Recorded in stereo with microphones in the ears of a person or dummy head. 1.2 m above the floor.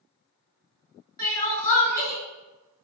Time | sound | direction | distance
1.2 | crying | 15° left (ahead or behind) | 1.4 m